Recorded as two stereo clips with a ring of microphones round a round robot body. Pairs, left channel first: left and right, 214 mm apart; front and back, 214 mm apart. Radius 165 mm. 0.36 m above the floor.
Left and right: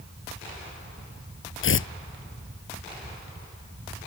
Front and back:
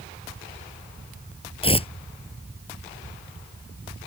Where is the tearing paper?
65° left.